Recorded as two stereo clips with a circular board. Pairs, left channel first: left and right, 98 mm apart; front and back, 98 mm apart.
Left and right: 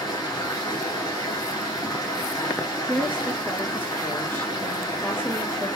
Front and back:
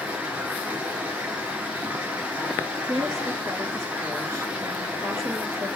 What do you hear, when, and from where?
0.0 s running water: 110° left, 1.6 m
2.9 s a woman speaking: 150° left, 2 m